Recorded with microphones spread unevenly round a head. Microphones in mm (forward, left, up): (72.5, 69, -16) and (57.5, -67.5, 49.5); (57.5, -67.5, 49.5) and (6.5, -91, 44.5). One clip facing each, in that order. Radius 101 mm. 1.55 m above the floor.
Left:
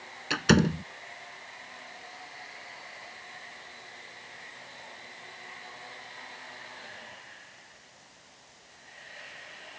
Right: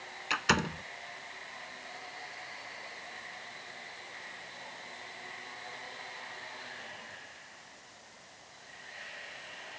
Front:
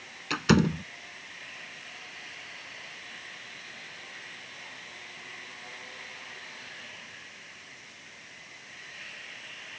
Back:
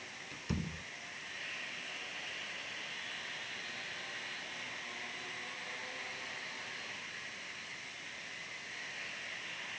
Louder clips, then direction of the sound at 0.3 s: Left 9 dB, front 18 dB; 40° left.